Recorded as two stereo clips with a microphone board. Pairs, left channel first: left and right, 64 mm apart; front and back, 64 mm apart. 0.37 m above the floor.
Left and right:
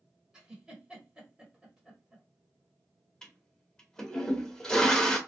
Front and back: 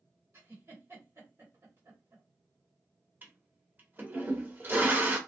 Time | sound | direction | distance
0.3 | a giggle | 160° right | 1.7 m
3.2 | a toilet flushing | 160° left | 0.8 m